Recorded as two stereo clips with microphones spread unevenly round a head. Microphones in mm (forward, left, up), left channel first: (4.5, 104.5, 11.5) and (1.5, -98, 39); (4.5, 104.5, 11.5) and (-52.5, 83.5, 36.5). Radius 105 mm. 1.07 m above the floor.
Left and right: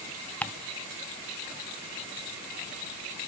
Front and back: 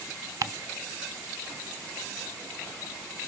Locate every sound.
0.4 s ticking: 160° left, 0.7 m